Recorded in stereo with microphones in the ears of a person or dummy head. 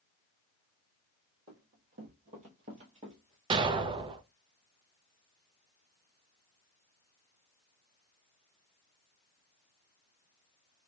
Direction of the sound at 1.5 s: 55° right (ahead or behind).